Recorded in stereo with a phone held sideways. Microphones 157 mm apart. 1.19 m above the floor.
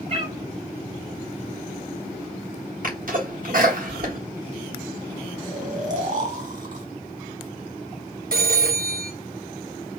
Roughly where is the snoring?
Right.